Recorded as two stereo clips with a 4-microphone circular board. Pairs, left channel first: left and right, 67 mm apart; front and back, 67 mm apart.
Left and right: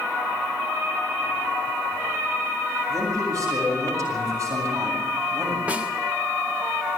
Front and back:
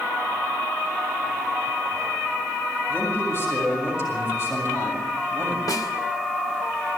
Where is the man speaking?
50° right, 7.5 m.